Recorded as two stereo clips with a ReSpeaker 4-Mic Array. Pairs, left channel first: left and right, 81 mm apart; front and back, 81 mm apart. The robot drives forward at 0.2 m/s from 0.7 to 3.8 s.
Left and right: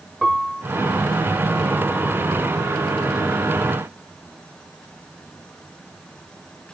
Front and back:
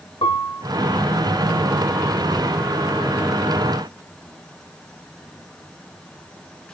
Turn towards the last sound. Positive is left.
turn(degrees=-5)